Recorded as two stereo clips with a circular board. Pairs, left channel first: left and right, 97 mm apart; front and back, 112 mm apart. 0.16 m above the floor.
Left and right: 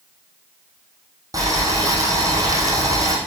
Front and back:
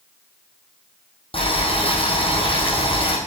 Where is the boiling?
35° right, 3.5 m.